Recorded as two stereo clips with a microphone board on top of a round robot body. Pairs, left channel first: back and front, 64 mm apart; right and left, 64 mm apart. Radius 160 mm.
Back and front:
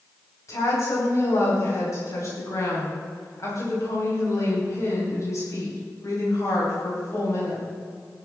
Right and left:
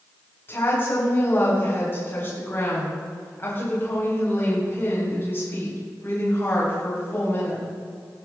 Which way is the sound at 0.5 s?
145° right.